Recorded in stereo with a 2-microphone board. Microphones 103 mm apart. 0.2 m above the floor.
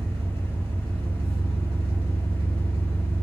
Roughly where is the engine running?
Right.